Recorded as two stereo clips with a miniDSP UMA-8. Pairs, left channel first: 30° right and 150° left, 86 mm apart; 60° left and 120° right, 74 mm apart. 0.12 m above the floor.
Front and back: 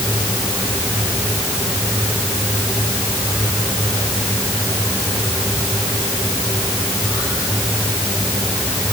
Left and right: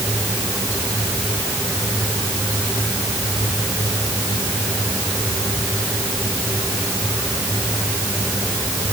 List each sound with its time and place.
Only background noise.